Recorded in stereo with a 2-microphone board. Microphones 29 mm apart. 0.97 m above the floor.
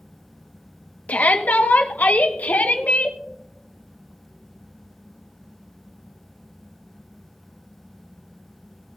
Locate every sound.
1.1 s a shout: 65° left (ahead or behind), 1.2 m; by 3.2 s 70° left (ahead or behind), 2.0 m